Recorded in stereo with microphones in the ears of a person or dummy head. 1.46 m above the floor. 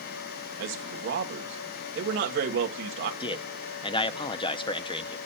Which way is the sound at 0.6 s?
65° right (ahead or behind).